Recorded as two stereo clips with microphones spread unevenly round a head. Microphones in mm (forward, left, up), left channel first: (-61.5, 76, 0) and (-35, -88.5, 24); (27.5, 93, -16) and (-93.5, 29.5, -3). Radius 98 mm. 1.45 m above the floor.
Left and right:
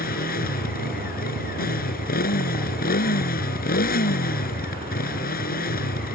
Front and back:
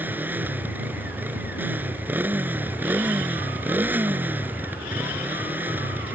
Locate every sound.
0.0 s a motorcycle: 130° left